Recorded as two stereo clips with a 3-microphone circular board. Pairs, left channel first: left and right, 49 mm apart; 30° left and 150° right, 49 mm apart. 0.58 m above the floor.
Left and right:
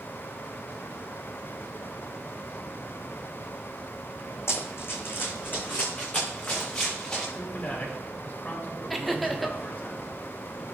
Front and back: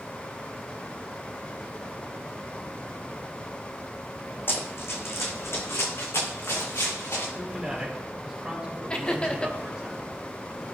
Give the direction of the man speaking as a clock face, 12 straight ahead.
7 o'clock.